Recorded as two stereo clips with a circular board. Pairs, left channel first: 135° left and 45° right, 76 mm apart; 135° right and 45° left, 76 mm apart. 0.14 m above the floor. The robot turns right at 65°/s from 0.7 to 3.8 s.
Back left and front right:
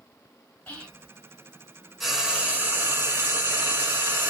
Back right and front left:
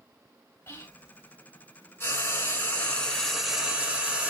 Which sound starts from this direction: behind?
Whispering, at 0.7 s.